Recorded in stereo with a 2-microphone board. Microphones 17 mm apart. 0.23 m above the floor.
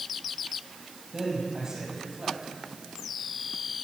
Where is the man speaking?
30° right (ahead or behind), 6 m.